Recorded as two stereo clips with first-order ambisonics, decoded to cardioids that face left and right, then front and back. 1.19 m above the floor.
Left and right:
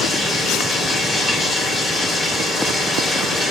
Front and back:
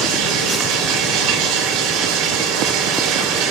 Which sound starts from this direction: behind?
Running water, at 0.0 s.